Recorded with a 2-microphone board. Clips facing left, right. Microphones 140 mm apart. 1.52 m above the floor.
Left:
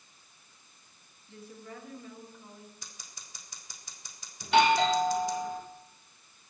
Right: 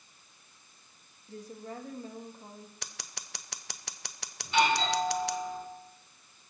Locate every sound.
1.3 s a woman speaking: 40° right (ahead or behind), 3 m
2.8 s scissors: 75° right (ahead or behind), 0.8 m
4.4 s a doorbell: 75° left (ahead or behind), 3 m